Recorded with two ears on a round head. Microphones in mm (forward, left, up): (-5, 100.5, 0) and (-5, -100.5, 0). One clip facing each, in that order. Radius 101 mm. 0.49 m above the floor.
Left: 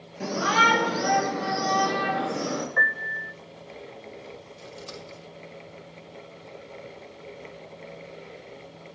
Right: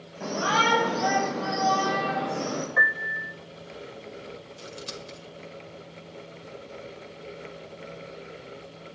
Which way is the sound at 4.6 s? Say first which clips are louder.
Right 1 dB; 25° right (ahead or behind).